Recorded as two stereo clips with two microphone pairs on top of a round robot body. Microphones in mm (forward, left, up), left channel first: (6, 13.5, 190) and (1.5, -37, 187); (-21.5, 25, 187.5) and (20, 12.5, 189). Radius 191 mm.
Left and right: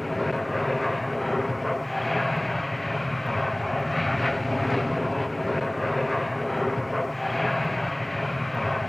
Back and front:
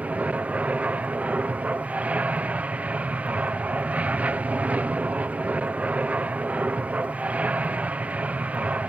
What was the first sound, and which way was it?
An aircraft, 5° right.